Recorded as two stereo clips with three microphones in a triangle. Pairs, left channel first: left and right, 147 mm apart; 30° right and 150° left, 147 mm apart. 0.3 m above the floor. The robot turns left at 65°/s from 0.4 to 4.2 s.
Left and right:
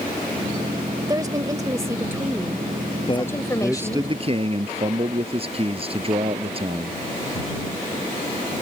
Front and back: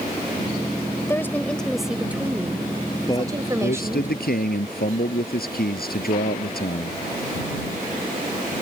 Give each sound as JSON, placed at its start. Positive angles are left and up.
{"t": 1.1, "sound": "a woman speaking", "azimuth_deg": -75}
{"t": 3.1, "sound": "a man speaking", "azimuth_deg": 35}